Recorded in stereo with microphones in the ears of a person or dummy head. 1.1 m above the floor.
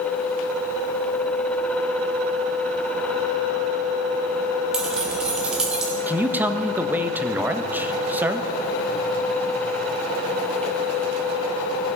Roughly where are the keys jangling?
Centre.